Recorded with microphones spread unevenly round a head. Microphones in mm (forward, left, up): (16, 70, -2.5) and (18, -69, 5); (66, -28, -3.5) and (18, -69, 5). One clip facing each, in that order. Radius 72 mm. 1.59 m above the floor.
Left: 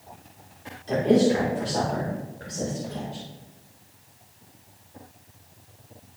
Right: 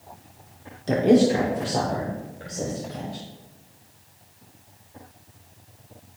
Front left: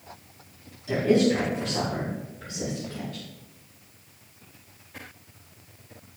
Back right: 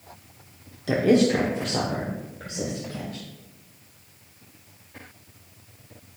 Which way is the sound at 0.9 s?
120° right.